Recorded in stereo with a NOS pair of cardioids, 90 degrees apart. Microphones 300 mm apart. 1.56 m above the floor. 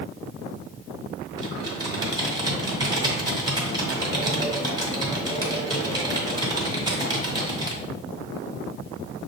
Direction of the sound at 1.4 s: 15° right.